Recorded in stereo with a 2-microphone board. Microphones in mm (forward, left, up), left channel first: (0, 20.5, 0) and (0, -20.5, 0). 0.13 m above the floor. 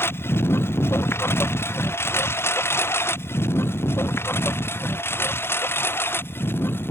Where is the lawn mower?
75° left (ahead or behind); by 6.9 s 70° left (ahead or behind).